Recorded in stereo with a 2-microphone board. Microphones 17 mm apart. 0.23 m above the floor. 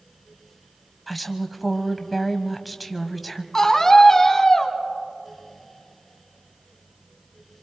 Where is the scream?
25° left (ahead or behind), 2 m.